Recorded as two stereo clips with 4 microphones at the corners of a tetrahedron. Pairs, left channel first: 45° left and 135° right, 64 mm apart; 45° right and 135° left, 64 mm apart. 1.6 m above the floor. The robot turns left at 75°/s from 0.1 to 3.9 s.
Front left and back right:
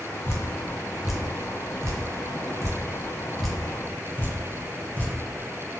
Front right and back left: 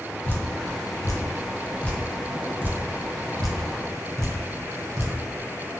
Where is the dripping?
10° left, 0.6 m; by 5.1 s 95° left, 0.6 m.